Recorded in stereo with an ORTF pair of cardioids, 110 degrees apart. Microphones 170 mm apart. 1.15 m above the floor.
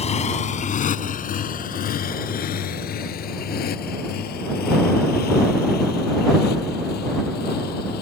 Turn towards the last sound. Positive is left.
turn(degrees=70)